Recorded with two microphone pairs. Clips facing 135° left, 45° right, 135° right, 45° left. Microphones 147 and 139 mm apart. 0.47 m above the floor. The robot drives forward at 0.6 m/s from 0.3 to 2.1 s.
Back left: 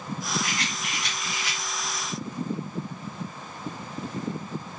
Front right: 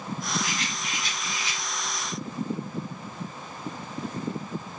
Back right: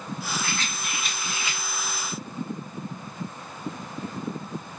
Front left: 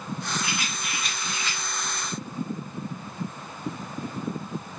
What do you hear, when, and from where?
0.4 s a rattle: 115° left, 0.6 m; by 1.6 s 150° left, 1.1 m